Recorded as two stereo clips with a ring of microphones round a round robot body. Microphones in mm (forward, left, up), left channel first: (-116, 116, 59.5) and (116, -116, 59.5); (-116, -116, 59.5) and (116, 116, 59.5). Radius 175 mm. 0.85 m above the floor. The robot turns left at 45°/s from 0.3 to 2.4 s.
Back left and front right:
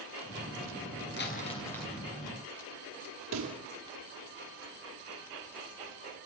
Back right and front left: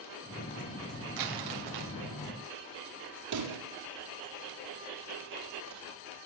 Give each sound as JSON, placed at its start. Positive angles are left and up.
{"t": 1.2, "sound": "crumpling", "azimuth_deg": 75, "distance_m": 5.5}
{"t": 3.3, "sound": "a pop", "azimuth_deg": 5, "distance_m": 6.0}